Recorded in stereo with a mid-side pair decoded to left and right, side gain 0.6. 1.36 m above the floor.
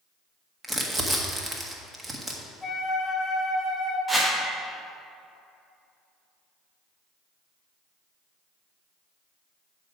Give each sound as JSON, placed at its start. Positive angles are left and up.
{"t": 0.6, "sound": "crumpling", "azimuth_deg": -20, "distance_m": 1.5}
{"t": 2.6, "sound": "a flute", "azimuth_deg": 15, "distance_m": 1.7}
{"t": 4.1, "sound": "a whoosh", "azimuth_deg": -10, "distance_m": 1.6}